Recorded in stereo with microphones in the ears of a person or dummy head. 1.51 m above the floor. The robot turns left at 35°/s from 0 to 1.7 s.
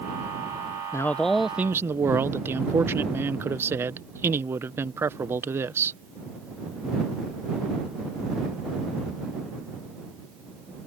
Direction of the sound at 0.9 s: 15° left (ahead or behind).